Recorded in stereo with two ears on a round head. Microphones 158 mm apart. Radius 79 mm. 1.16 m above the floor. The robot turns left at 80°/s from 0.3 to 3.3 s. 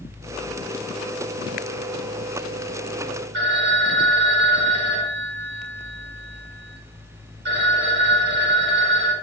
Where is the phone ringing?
60° right (ahead or behind), 1.1 m.